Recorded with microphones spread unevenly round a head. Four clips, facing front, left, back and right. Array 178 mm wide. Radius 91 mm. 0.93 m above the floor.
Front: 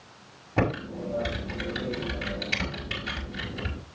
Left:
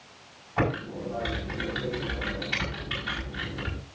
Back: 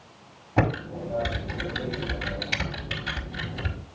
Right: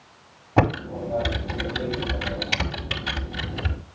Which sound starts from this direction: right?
Typing on a keyboard, at 0.6 s.